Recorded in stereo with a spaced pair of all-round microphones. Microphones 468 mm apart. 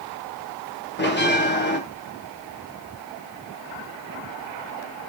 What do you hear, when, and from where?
1.0 s a bell: 20° left (ahead or behind), 1.1 m